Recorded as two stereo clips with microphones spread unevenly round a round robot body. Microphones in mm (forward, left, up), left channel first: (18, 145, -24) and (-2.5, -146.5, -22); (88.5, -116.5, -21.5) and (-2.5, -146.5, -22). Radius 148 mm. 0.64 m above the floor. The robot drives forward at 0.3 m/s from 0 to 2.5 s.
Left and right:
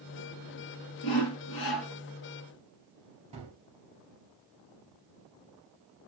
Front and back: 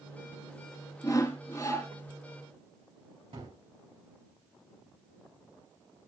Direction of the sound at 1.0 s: 95° left.